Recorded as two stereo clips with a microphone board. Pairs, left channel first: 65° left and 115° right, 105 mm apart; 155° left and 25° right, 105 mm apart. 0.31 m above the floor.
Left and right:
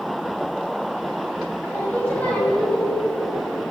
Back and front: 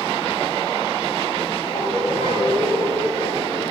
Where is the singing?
140° left, 2.5 m.